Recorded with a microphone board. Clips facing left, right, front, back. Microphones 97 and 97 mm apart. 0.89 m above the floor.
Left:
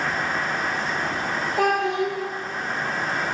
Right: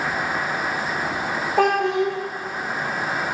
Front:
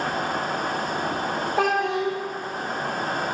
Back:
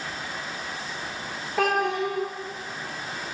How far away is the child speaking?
About 0.5 m.